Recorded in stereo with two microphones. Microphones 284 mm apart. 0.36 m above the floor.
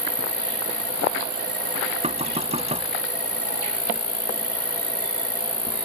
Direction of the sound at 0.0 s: 30° right (ahead or behind).